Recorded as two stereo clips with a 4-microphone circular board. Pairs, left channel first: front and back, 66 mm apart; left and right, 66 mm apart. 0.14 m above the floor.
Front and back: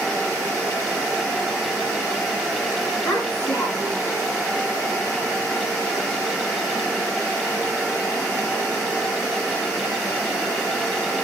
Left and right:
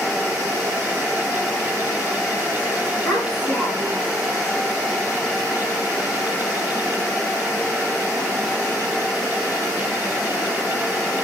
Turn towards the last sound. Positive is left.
turn(degrees=30)